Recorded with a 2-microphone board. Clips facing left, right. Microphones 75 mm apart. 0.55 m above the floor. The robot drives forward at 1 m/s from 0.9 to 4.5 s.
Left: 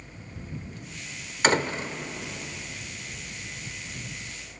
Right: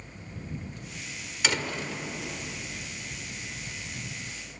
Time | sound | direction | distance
1.4 | a door slam | 45° left (ahead or behind) | 1.4 m